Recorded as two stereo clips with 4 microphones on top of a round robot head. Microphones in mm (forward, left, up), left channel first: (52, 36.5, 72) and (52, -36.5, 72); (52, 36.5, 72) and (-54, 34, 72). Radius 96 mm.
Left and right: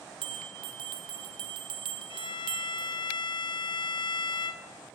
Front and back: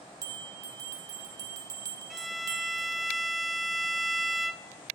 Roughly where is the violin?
Left.